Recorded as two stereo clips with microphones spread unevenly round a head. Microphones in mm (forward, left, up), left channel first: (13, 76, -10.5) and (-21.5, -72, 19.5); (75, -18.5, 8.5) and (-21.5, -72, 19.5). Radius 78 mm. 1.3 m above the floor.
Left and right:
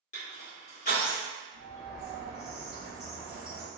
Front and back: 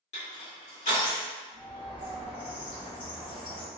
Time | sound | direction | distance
0.1 | crushing | 45° left | 1.5 m
1.5 | a bird | straight ahead | 1.4 m